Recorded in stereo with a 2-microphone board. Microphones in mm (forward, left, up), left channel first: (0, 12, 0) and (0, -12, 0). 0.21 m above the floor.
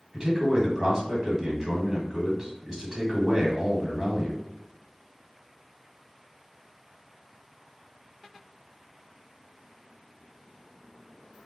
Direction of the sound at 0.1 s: 25° right (ahead or behind).